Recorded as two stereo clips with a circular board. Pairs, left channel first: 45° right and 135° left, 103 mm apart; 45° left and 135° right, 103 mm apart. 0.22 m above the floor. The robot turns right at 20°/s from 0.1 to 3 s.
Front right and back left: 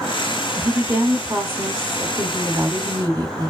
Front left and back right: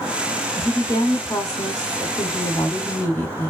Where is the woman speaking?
55° left, 1.6 m; by 3.5 s 105° left, 1.6 m.